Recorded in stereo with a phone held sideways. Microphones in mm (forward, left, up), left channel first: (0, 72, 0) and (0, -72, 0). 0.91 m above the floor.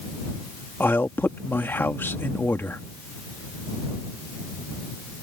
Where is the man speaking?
15° left (ahead or behind).